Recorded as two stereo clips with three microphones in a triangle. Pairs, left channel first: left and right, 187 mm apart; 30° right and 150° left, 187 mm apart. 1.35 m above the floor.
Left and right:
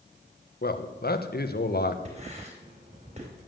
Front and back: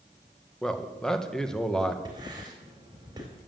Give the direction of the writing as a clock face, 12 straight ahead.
5 o'clock.